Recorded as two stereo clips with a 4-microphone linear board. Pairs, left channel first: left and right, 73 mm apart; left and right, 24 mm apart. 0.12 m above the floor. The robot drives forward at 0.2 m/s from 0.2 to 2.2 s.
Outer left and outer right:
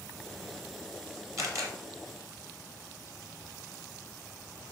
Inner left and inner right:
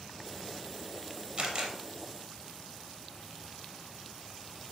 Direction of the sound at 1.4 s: 40° right (ahead or behind).